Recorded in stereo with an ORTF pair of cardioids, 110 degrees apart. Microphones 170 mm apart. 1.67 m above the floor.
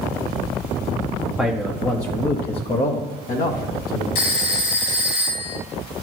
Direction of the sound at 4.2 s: 65° left.